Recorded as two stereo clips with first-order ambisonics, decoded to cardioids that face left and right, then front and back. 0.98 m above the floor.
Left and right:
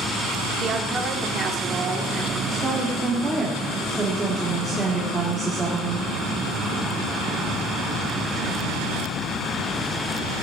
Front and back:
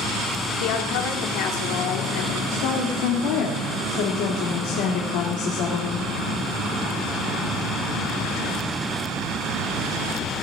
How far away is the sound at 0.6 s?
About 2.5 m.